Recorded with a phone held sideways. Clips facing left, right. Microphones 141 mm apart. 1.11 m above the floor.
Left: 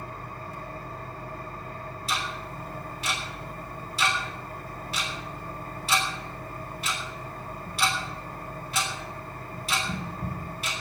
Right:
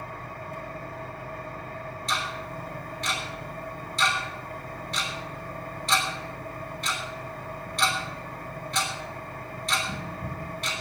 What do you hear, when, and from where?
0.0 s an engine running: 60° right (ahead or behind), 4.5 m
2.1 s ticking: 5° left (ahead or behind), 3 m